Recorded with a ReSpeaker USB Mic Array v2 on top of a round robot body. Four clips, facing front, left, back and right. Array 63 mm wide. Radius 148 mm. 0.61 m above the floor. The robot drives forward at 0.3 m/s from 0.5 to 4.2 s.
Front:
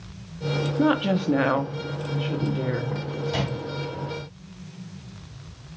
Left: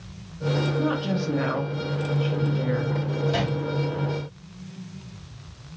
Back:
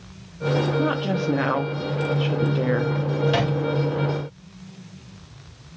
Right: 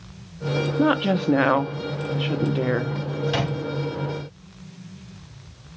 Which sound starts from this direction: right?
A woman speaking, at 0.8 s.